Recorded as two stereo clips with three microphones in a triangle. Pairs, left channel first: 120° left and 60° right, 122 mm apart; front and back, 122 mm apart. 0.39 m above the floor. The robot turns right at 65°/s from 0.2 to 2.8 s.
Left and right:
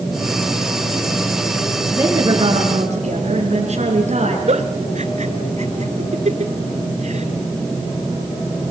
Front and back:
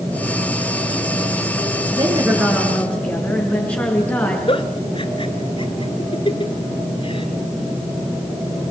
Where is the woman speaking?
130° right, 5 m; by 4.4 s 75° right, 5 m.